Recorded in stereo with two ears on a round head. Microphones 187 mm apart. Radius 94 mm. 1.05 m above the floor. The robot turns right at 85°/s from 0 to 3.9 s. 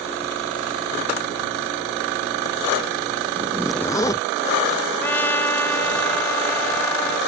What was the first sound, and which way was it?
A zipper, 30° right.